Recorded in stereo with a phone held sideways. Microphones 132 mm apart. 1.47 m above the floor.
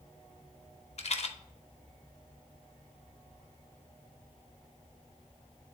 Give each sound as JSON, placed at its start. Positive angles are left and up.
{"t": 1.0, "sound": "a rattle", "side_deg": 55, "distance_m": 0.7}